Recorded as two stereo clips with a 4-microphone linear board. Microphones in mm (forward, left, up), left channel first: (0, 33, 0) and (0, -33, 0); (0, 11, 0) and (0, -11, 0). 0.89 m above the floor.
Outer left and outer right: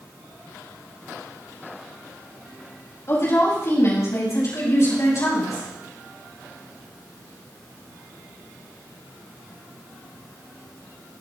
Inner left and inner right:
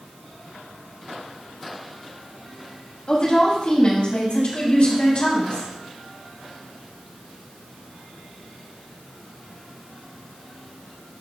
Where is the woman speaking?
45° left (ahead or behind), 4.5 m; by 5.7 s 55° left (ahead or behind), 5.5 m.